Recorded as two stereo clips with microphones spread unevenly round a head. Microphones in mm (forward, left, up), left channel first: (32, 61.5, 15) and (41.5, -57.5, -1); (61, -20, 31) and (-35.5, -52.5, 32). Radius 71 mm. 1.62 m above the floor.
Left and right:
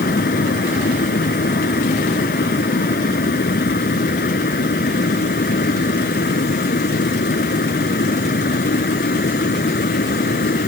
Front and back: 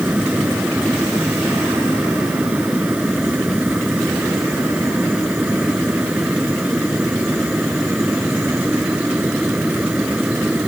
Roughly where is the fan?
Behind left.